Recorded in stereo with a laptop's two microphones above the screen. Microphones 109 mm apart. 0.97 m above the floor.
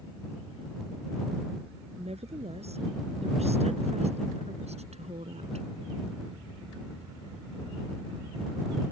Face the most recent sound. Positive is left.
turn(degrees=-80)